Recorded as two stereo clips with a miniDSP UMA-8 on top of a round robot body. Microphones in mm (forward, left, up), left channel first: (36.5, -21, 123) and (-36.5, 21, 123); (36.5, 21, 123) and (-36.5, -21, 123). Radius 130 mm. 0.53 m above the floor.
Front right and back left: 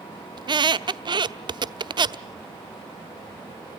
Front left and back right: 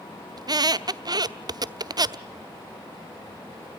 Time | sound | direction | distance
0.4 | a squeak | 175° left | 0.9 m